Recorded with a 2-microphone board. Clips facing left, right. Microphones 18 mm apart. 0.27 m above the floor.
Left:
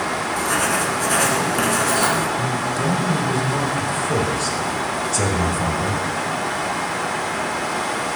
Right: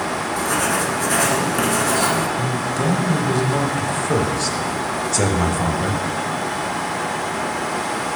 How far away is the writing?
About 1.6 m.